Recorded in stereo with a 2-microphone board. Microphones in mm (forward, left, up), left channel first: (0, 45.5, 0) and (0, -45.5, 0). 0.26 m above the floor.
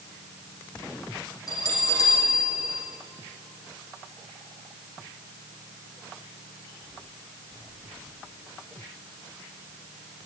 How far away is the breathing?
I don't hear breathing.